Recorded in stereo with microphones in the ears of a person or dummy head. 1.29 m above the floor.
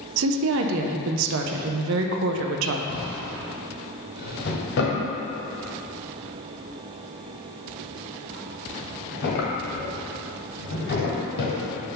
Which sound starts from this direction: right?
A woman speaking, at 0.2 s.